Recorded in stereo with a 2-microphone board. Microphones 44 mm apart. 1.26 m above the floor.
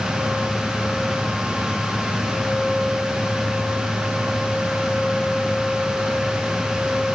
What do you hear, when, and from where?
Only background noise.